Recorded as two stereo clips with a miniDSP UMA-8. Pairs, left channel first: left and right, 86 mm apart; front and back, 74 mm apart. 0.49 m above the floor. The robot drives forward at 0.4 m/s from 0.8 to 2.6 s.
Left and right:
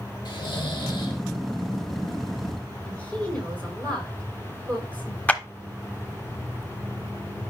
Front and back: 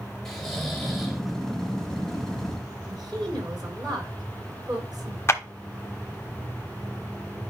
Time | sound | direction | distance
0.2 | snoring | 85° left | 2.0 m
2.8 | a woman speaking | 165° left | 5.5 m
5.3 | a clap | 25° left | 0.8 m